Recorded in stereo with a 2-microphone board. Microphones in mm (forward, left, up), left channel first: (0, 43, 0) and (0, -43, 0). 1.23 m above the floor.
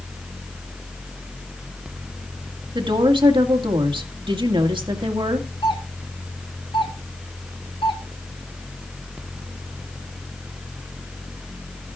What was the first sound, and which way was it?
A woman speaking, 75° right (ahead or behind).